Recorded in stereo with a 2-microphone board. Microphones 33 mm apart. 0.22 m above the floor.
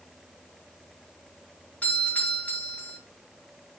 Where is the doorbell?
50° left (ahead or behind), 4.5 m.